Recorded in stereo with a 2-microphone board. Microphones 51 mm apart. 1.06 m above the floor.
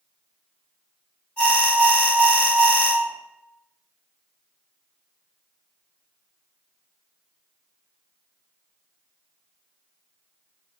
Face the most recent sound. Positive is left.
turn(degrees=20)  # may be behind; listen again after turning